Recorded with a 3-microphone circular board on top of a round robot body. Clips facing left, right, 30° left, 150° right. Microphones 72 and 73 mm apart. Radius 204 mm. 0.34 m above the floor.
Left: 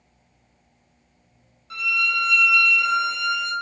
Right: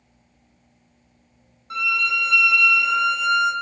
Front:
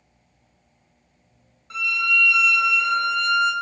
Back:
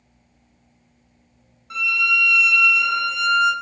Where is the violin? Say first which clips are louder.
Right 1 dB, back 2 dB; 75° right, 1.1 m.